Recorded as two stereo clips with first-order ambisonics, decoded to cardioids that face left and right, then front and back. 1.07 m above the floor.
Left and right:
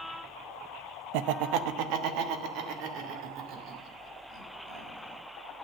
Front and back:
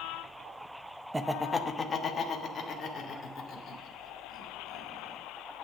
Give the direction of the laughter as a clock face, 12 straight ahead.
3 o'clock.